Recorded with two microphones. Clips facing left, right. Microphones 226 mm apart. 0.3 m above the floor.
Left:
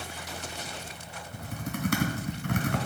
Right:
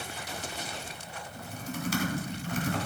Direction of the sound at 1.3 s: 60° left (ahead or behind).